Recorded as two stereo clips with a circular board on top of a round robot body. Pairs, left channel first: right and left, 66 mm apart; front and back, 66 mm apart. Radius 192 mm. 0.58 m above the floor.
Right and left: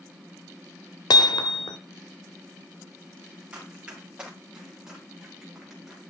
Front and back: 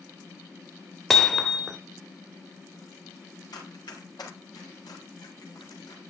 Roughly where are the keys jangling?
No keys jangling in this recording.